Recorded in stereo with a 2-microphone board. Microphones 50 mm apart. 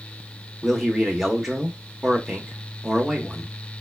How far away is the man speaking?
About 0.8 m.